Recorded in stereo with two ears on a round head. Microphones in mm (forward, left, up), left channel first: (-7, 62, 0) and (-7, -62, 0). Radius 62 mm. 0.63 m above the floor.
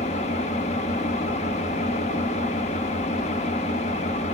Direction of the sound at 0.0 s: 50° left (ahead or behind).